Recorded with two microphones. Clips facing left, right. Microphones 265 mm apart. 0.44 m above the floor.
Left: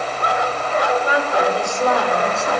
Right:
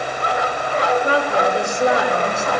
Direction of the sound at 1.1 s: 35° right (ahead or behind).